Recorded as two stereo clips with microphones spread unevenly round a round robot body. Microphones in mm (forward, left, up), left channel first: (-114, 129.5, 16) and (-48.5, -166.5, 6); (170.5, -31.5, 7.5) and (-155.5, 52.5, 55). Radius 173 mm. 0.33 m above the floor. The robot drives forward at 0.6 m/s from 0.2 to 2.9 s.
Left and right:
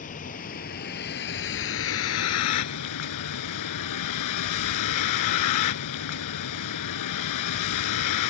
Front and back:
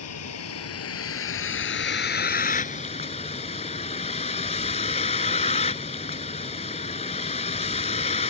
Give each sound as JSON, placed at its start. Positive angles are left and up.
{"t": 0.0, "sound": "a vehicle", "azimuth_deg": 35}